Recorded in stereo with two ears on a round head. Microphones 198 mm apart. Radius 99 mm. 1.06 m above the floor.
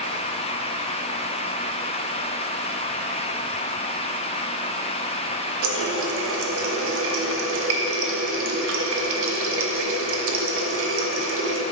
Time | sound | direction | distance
5.6 | a running tap | 60° right (ahead or behind) | 0.6 m